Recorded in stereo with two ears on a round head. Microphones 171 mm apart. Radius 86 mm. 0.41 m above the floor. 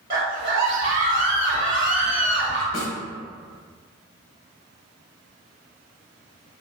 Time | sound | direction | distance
0.1 | a scream | 20° right (ahead or behind) | 0.9 m
2.7 | a snare drum | 65° left (ahead or behind) | 0.9 m